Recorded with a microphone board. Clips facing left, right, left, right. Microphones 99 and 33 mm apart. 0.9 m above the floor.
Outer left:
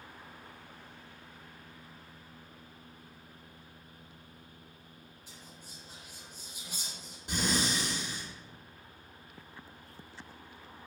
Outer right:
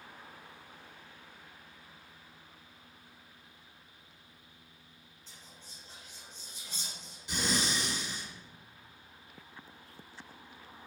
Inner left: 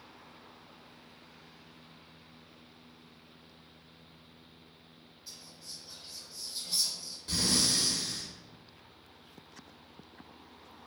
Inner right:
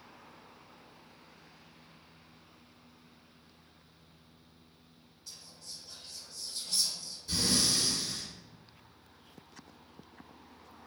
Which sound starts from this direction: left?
Breathing, at 7.3 s.